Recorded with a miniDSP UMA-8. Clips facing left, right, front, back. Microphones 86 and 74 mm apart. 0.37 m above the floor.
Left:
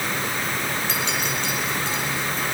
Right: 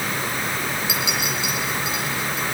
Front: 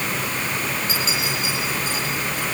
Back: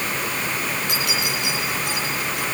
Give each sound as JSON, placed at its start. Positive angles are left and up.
{"t": 0.9, "sound": "a clink", "azimuth_deg": -170, "distance_m": 9.0}